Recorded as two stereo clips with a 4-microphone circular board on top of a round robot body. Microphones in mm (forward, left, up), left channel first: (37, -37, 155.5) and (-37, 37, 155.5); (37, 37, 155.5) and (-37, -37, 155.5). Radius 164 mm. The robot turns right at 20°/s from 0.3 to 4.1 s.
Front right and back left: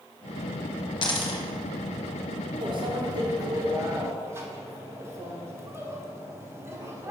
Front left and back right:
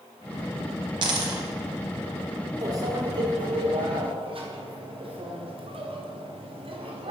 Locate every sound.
1.0 s a dropped coin: 90° right, 0.9 m; by 1.4 s 80° right, 0.9 m
2.6 s a microwave: 170° left, 1.6 m; by 7.1 s 160° right, 1.6 m